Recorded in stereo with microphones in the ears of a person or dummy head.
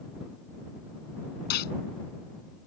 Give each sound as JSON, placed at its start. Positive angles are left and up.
{"t": 1.5, "sound": "a gunshot", "side_deg": 55}